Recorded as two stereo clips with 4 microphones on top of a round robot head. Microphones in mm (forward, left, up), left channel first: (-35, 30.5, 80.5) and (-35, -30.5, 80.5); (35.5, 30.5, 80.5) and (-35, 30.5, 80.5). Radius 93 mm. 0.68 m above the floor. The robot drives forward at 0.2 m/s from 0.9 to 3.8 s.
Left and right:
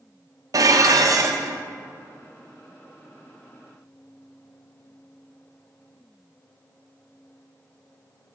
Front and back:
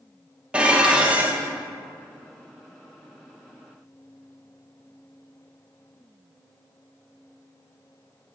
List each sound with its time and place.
0.5 s dishes clattering: 105° right, 0.8 m; by 1.6 s 115° right, 0.8 m